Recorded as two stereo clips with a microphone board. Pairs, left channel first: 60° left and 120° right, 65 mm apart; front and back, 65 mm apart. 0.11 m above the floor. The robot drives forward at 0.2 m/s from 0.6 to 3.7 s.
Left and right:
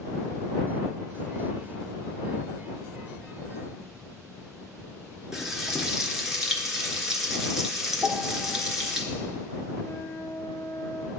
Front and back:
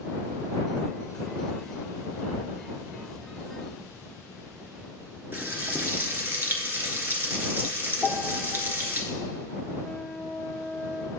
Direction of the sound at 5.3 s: 165° left.